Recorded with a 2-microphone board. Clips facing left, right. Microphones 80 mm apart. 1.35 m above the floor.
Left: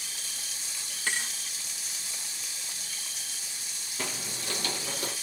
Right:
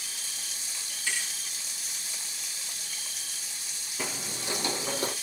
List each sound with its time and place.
1.1 s a thud: 55° left (ahead or behind), 2 m
4.0 s footsteps: 5° right (ahead or behind), 1.6 m; by 5.1 s 35° right (ahead or behind), 1.9 m